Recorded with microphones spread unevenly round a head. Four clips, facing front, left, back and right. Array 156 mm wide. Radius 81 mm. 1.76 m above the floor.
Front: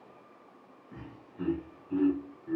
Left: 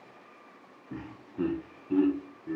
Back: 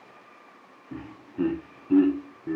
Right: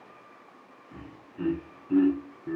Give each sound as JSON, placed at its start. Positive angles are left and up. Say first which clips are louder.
{"t": 0.9, "sound": "laughter", "louder": "left 5 dB, back 11 dB", "azimuth_deg": 140, "distance_m": 0.9}